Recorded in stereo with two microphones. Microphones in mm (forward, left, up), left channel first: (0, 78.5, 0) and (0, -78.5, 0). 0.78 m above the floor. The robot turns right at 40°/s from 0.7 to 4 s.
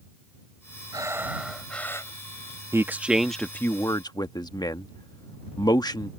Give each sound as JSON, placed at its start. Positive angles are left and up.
{"t": 0.9, "sound": "breathing", "azimuth_deg": -25}
{"t": 2.7, "sound": "a man speaking", "side_deg": -20}